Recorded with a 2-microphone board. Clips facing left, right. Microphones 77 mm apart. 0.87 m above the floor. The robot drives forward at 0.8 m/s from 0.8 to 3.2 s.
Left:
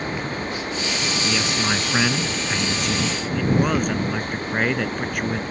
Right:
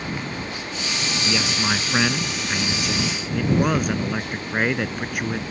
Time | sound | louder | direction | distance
1.2 | a man speaking | right 1 dB | 5° right (ahead or behind) | ?